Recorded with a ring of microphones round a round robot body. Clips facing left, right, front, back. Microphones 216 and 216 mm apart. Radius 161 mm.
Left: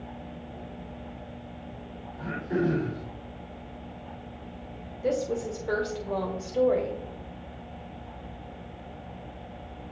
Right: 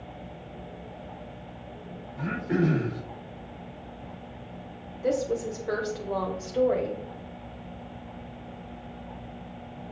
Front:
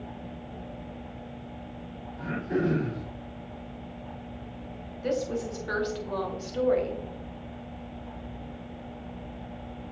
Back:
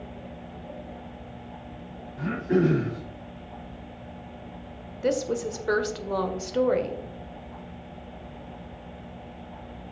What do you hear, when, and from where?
2.2 s throat clearing: 135° right, 4.5 m
5.0 s a woman speaking: straight behind, 1.4 m